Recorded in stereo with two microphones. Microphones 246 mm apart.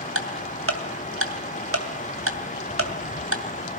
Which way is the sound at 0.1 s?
60° right (ahead or behind).